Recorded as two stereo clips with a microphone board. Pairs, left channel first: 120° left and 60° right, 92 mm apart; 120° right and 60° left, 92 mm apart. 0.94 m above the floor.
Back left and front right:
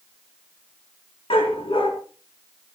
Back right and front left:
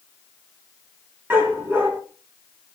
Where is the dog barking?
130° left, 4.5 m.